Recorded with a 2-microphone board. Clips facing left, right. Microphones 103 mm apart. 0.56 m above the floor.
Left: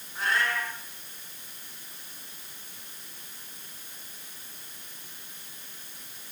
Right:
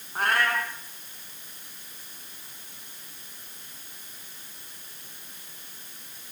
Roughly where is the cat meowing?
Right.